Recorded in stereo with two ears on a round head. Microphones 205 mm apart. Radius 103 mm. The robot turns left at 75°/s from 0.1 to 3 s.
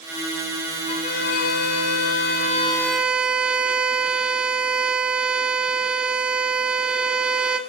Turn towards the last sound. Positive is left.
turn(degrees=-5)